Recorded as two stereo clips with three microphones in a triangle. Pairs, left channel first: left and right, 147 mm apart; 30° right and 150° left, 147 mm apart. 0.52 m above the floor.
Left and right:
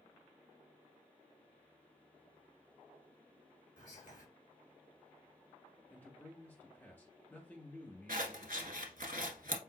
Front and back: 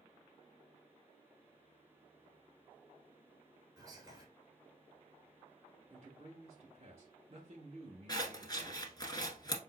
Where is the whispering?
90° left, 1.7 m.